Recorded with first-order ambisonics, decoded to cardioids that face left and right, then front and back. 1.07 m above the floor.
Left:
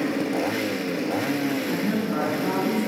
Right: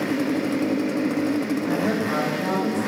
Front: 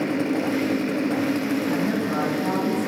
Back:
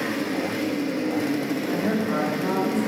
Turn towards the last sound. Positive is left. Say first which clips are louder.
# right 3 dB, even
turn(degrees=-90)